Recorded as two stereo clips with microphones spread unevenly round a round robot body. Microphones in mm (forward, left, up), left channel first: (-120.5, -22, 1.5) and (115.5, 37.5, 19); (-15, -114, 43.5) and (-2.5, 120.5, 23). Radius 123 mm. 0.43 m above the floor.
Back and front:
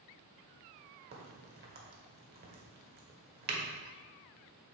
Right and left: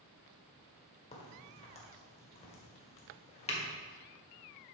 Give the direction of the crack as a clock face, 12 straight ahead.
1 o'clock.